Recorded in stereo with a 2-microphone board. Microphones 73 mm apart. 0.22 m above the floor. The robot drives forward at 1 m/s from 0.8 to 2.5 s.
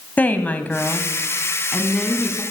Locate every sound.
0.2 s a woman speaking: 20° left (ahead or behind), 1.4 m; by 2.4 s 15° left (ahead or behind), 2.5 m